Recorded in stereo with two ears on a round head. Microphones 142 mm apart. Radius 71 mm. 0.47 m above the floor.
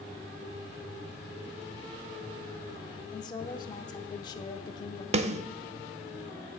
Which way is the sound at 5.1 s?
40° right (ahead or behind).